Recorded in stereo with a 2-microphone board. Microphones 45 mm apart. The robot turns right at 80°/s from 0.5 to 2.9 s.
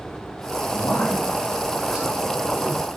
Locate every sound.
0.7 s a man speaking: 80° left, 1.6 m; by 2.8 s 75° right (ahead or behind), 1.6 m